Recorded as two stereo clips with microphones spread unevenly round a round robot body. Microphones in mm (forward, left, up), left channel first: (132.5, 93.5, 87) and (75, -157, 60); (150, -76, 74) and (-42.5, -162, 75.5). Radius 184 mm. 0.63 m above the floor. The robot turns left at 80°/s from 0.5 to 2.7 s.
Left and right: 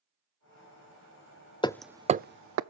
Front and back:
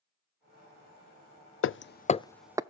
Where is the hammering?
Straight ahead, 0.5 m; by 2.6 s 80° right, 0.5 m.